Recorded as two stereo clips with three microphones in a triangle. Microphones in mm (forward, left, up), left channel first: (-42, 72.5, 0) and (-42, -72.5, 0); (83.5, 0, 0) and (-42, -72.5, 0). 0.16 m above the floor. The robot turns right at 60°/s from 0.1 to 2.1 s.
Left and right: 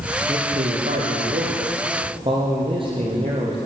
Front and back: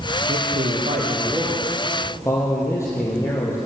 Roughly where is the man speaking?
Behind right.